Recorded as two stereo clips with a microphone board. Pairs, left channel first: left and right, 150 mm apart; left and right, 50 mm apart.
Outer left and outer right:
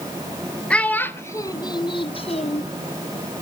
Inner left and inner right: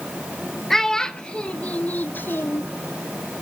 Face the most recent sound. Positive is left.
turn(degrees=50)  # may be behind; listen again after turning